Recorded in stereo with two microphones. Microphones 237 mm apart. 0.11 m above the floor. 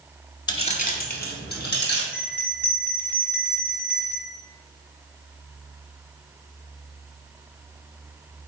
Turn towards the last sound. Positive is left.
turn(degrees=10)  # may be behind; listen again after turning